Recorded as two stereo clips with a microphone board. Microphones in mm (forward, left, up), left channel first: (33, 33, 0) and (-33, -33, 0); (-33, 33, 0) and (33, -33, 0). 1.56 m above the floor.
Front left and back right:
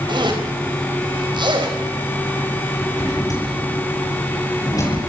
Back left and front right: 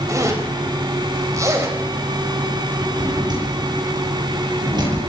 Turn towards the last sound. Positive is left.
turn(degrees=-5)